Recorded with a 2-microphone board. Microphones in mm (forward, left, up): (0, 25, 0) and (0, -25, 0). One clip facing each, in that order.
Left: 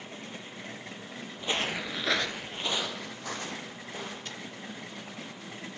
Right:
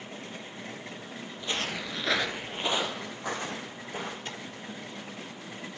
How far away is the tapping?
About 3.5 m.